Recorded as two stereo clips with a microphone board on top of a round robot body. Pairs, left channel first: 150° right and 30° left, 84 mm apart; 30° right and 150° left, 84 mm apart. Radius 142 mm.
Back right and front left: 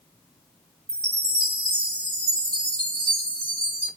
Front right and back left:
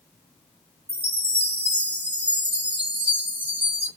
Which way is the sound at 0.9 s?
80° left.